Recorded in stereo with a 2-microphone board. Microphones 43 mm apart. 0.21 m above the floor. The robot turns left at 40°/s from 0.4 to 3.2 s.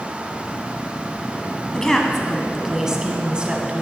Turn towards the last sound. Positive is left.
turn(degrees=-35)